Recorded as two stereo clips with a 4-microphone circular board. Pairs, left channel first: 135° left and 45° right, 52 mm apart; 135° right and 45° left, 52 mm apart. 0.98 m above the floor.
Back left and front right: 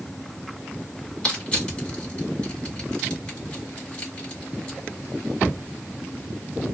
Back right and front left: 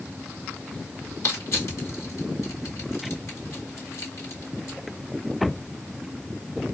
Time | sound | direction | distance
1.2 | crushing | 155° right | 1.9 m